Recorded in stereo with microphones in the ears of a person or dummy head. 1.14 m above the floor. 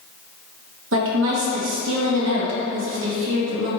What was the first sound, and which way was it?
A woman speaking, 70° right (ahead or behind).